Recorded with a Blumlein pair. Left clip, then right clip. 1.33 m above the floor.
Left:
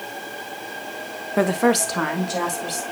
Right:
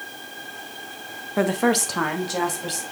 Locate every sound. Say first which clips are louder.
1.4 s a woman speaking: left 2 dB; 10° left, 0.5 m; by 2.8 s straight ahead, 2 m